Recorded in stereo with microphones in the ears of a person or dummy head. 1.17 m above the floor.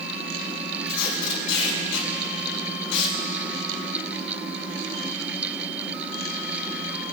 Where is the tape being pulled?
75° left (ahead or behind), 5 m.